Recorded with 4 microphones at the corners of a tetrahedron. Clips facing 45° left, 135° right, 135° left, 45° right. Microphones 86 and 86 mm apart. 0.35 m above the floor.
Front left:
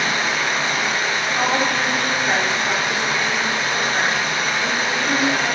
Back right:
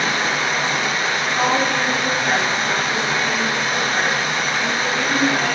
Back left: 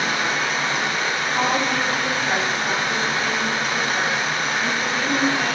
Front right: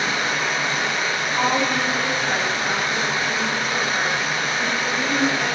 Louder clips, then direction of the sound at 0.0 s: Back right 1 dB, back left 1 dB; 175° left.